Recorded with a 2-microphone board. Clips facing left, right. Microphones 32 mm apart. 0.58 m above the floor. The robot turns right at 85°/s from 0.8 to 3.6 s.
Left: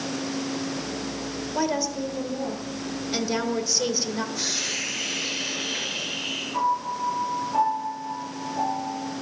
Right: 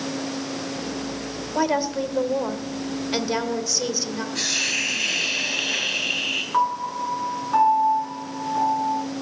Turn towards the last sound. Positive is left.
turn(degrees=-50)  # may be behind; listen again after turning